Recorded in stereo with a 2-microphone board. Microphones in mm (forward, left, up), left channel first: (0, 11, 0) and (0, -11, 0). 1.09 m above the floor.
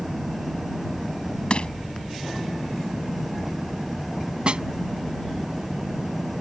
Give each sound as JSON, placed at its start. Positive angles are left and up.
{"t": 0.0, "sound": "an engine running", "side_deg": -10}
{"t": 1.5, "sound": "crushing", "side_deg": 55}
{"t": 4.5, "sound": "a snare drum", "side_deg": -45}